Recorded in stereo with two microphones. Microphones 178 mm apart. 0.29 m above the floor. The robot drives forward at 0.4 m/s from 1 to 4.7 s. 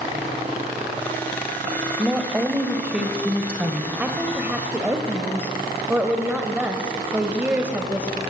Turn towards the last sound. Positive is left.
turn(degrees=-10)  # may be behind; listen again after turning